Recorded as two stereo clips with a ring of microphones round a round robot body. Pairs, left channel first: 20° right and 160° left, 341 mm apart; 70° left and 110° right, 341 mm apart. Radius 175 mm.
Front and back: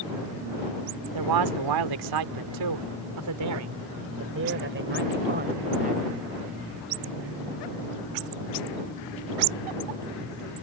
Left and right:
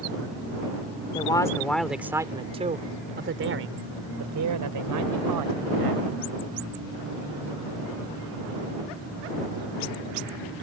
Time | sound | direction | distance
1.1 | a man speaking | 145° left | ?